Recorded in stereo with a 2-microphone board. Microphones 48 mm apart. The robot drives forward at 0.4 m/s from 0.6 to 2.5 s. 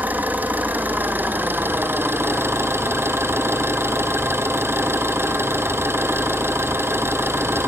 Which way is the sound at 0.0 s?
35° right (ahead or behind).